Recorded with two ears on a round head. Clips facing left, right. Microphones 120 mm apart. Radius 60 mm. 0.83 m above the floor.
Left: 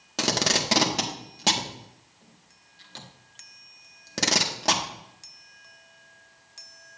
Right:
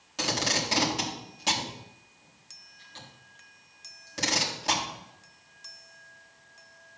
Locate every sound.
0.2 s tape being pulled: 65° left (ahead or behind), 1.9 m